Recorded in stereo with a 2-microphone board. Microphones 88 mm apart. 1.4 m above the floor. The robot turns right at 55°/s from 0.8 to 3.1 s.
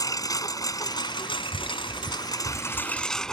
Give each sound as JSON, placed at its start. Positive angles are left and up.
{"t": 0.0, "sound": "a lawn mower", "azimuth_deg": 45}